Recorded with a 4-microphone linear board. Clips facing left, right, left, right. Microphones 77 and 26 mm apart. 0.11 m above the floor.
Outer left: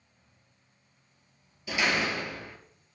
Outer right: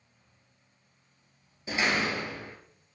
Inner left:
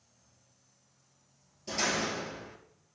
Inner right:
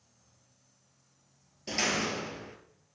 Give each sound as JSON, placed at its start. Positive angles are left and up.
{"t": 1.7, "sound": "a door slam", "side_deg": -35, "distance_m": 1.9}